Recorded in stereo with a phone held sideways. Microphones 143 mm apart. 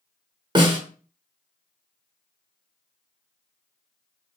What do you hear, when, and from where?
0.6 s a snare drum: 30° right (ahead or behind), 0.9 m